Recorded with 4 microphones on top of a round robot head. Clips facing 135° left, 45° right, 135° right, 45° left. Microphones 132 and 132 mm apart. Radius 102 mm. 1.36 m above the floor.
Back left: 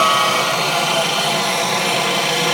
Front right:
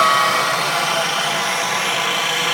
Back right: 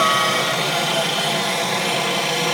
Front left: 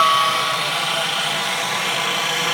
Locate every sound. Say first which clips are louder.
0.0 s a helicopter: even, front left 1 dB; 155° right; by 2.6 s straight behind